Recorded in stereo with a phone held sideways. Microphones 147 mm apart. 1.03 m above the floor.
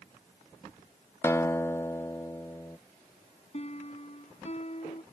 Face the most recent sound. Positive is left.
turn(degrees=45)  # may be behind; listen again after turning